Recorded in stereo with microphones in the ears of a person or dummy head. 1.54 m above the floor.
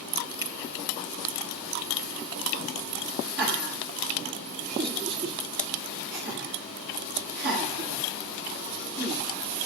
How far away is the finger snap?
About 1.1 m.